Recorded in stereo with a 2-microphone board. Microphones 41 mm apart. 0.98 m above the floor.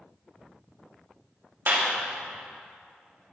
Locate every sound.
1.7 s a clap: 55° right (ahead or behind), 1.8 m